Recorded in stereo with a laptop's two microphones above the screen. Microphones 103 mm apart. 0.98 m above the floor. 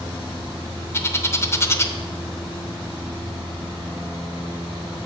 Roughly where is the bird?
Left.